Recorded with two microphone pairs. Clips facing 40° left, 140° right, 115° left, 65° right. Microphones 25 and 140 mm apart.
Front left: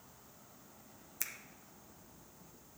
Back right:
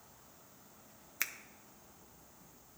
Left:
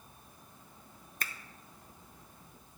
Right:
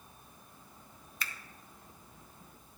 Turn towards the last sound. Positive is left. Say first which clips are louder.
# back right 6 dB, left 1 dB
turn(degrees=160)